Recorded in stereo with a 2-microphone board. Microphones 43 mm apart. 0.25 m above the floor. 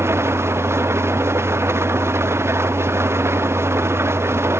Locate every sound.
0.0 s an engine running: 70° right (ahead or behind)